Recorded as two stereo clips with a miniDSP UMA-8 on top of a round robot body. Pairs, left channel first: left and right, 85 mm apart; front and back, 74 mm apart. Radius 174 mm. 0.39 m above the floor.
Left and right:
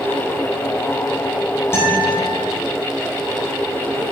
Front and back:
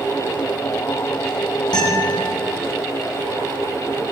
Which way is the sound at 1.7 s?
30° left.